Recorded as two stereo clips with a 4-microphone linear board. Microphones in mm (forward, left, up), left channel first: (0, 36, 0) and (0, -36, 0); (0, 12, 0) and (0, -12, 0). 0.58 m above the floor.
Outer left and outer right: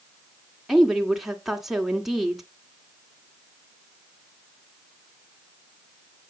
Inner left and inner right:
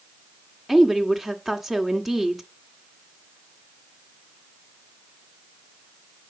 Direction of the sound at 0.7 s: 5° right (ahead or behind).